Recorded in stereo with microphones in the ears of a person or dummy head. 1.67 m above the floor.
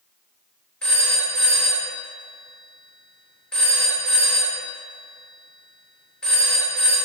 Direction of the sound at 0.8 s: Centre (ahead or behind).